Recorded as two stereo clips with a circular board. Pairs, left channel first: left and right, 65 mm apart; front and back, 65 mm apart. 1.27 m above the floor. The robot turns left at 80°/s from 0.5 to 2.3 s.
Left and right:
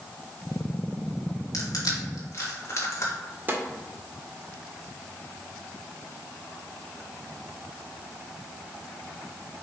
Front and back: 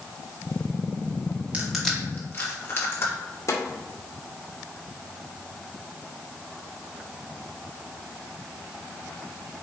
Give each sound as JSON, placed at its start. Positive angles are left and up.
{"t": 1.5, "sound": "crushing", "azimuth_deg": 110, "distance_m": 2.5}
{"t": 3.5, "sound": "a snare drum", "azimuth_deg": -30, "distance_m": 2.0}